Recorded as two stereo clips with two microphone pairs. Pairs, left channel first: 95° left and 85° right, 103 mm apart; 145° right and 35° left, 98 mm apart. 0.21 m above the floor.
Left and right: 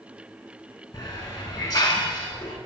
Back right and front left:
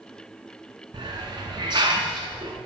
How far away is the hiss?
About 2.5 m.